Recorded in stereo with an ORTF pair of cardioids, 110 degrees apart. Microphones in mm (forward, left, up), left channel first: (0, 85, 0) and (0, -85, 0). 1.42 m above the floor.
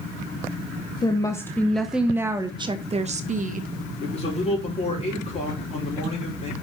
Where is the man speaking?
40° left, 4.5 m.